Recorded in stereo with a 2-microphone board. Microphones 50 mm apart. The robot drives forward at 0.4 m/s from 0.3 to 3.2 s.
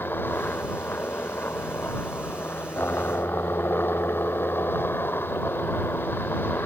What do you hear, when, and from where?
0.0 s a helicopter: 45° left (ahead or behind)